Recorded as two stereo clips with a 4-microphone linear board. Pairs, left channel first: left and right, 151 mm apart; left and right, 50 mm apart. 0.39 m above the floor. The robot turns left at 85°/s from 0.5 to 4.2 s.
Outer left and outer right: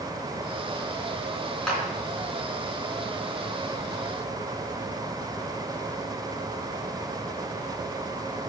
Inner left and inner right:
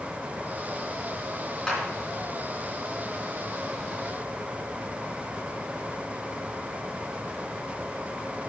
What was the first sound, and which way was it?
A clap, 5° left (ahead or behind).